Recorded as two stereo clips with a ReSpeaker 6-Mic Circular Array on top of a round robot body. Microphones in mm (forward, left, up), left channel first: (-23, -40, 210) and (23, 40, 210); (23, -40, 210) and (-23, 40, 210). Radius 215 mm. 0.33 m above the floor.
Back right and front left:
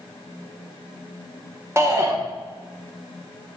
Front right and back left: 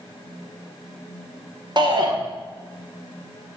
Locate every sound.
1.8 s a shout: 110° left, 2.0 m